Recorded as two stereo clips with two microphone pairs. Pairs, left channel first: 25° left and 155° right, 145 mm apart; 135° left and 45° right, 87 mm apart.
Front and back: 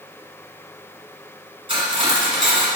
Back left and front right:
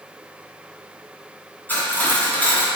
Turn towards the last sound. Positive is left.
turn(degrees=-165)